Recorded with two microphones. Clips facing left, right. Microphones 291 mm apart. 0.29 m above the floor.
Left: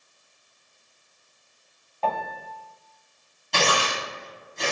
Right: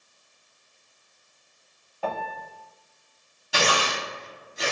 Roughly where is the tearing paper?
Centre.